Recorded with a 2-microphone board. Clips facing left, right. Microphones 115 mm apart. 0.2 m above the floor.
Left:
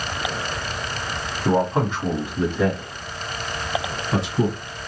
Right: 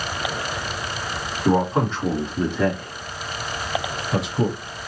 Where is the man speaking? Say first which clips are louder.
Right 1 dB; centre (ahead or behind), 1.6 m; by 4.6 s 35° left (ahead or behind), 2 m.